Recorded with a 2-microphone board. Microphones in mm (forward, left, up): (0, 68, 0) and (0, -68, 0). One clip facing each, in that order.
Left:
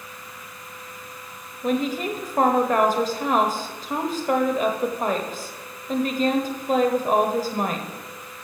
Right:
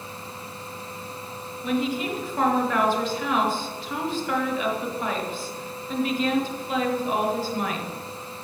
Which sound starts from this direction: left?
A woman speaking, at 1.6 s.